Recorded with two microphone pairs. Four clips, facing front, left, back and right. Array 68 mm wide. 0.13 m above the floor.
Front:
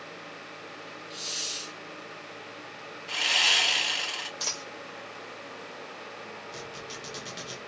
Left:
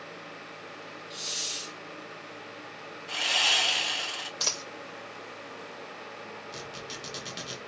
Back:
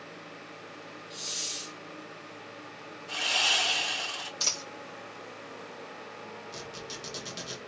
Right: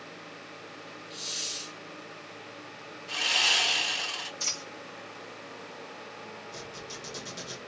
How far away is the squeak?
About 2 m.